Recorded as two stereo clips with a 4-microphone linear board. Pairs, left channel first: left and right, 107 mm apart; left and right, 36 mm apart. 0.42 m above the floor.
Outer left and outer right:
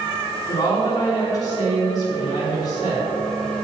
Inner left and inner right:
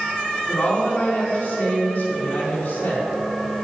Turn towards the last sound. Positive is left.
turn(degrees=35)  # may be behind; listen again after turning